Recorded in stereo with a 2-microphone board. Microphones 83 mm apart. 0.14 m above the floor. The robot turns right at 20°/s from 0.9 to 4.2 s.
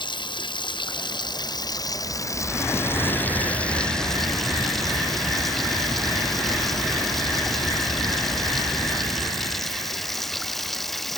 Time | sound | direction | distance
0.0 | running water | 110° left | ?